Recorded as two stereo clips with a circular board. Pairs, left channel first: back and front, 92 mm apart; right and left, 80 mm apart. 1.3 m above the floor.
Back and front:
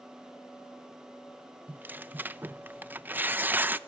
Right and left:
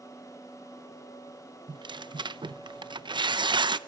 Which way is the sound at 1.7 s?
70° left.